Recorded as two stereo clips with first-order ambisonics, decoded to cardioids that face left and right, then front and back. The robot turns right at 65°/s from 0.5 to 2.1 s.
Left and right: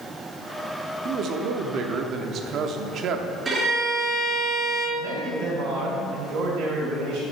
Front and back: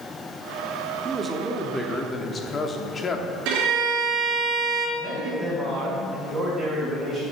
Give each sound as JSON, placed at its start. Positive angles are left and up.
{"t": 1.1, "sound": "a man speaking", "azimuth_deg": -130, "distance_m": 0.8}
{"t": 3.5, "sound": "a violin", "azimuth_deg": -165, "distance_m": 3.5}
{"t": 5.0, "sound": "a man speaking", "azimuth_deg": -100, "distance_m": 3.5}